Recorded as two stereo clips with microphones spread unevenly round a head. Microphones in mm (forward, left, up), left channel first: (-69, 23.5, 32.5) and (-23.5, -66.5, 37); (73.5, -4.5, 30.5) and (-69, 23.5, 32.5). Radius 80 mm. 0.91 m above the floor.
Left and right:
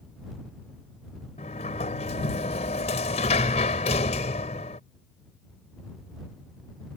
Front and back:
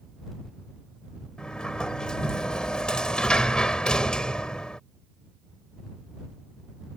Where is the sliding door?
75° left.